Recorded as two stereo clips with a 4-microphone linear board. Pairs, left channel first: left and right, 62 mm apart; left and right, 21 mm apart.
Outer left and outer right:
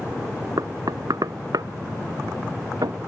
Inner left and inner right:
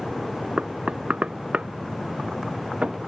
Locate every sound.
0.6 s knocking: 80° right